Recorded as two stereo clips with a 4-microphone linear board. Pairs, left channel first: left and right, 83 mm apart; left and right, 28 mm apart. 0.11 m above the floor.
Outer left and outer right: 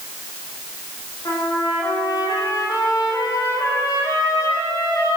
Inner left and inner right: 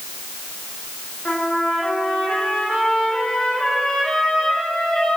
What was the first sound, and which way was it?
A trumpet, 50° left (ahead or behind).